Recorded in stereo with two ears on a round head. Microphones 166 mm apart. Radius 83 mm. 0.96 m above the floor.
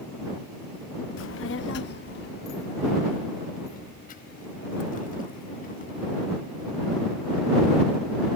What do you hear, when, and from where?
1.2 s a child speaking: 70° left (ahead or behind); by 6.2 s 45° left (ahead or behind)